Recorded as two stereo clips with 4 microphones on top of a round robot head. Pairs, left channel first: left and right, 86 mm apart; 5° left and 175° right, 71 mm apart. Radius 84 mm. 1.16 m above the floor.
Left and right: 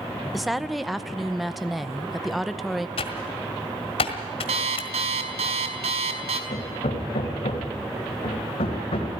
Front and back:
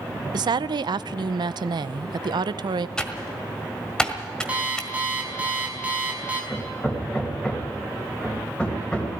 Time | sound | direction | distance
0.3 | a woman speaking | straight behind | 0.6 m
3.0 | typing on a keyboard | 85° left | 1.5 m
4.5 | an alarm clock | 100° right | 2.0 m
6.5 | hammering | 80° left | 3 m